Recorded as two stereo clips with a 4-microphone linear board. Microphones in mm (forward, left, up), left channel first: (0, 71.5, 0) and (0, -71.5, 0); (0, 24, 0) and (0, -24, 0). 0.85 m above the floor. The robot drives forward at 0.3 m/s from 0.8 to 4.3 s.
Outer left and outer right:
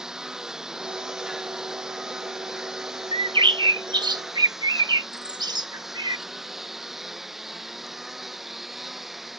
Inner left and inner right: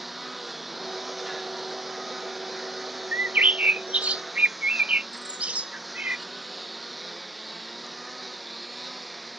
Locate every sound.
0.0 s a lawn mower: 5° right (ahead or behind); by 9.4 s centre (ahead or behind)
3.1 s a bird: 35° right (ahead or behind); by 6.2 s 30° right (ahead or behind)